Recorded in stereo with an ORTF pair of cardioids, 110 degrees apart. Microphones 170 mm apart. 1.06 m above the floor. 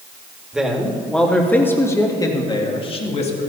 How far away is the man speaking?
About 2.5 m.